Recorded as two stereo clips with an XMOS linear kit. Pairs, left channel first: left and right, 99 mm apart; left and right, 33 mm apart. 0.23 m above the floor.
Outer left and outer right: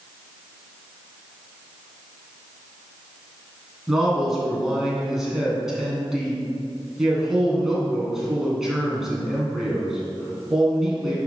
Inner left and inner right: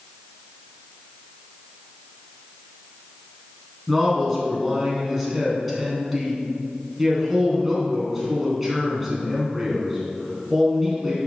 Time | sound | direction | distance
3.9 | a man speaking | 5° right (ahead or behind) | 3 m